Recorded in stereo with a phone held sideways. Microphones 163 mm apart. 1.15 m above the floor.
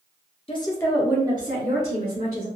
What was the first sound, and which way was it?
A woman speaking, 35° left (ahead or behind).